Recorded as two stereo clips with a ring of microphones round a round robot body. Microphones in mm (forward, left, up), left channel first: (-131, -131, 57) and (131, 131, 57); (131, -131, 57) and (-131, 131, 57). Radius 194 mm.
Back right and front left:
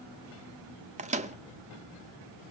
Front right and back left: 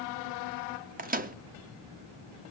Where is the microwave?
95° left, 0.5 m.